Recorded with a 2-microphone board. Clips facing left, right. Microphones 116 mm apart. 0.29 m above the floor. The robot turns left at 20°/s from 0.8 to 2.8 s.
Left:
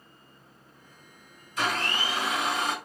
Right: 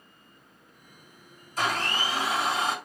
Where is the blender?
45° right (ahead or behind), 1.9 m; by 2.8 s 30° right (ahead or behind), 1.9 m.